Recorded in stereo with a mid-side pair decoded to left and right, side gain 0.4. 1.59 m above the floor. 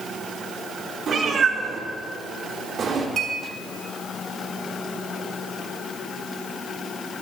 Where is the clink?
70° right, 4.5 m.